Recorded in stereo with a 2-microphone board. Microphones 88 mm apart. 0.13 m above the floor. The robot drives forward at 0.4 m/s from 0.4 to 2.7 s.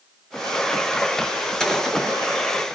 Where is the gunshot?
5° left (ahead or behind), 2.5 m.